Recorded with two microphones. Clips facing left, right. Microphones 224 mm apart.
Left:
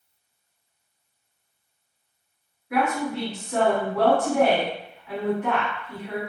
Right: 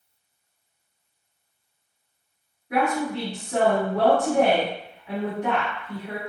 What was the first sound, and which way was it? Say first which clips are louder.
A woman speaking: right 1 dB; 35° right (ahead or behind).